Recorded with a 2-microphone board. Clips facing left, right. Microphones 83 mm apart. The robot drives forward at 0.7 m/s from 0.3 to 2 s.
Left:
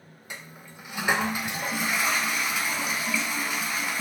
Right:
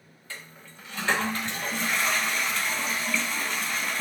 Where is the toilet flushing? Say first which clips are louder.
Left 1 dB; 15° left (ahead or behind), 0.9 m; by 4.0 s 10° left (ahead or behind), 1.7 m.